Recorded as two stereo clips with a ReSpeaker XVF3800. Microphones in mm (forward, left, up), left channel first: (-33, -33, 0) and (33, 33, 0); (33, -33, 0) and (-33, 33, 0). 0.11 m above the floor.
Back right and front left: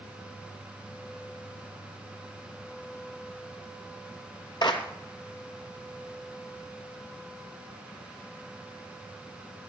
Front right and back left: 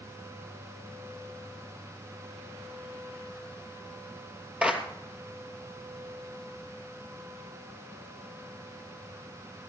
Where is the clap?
150° right, 2.5 m.